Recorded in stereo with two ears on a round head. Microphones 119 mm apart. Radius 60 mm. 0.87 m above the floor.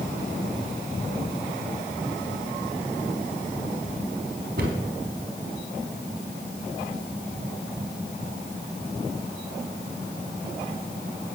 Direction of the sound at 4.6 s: 85° right.